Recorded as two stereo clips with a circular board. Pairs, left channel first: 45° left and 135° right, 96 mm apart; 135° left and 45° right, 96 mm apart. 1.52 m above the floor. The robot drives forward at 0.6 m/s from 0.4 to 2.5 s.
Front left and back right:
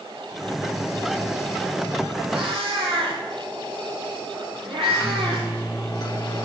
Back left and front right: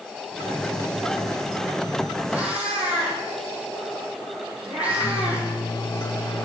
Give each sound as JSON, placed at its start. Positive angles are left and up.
{"t": 2.3, "sound": "a cat meowing", "azimuth_deg": -120, "distance_m": 4.5}
{"t": 4.8, "sound": "a microwave", "azimuth_deg": 95, "distance_m": 3.0}